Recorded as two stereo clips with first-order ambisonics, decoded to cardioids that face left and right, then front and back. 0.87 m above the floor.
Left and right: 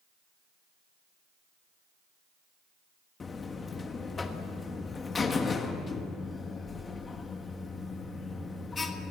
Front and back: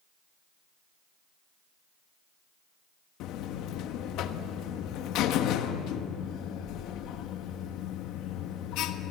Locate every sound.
3.2 s a buzzer: 20° left, 1.3 m